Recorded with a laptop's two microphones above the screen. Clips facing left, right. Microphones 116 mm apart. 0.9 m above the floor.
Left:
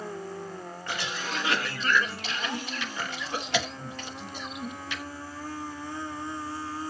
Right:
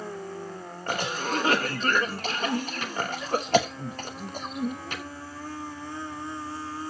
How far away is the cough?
About 0.9 m.